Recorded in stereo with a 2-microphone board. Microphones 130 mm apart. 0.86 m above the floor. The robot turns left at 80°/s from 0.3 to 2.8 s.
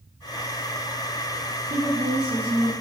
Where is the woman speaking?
80° right, 1.6 m; by 2.7 s 165° right, 1.6 m.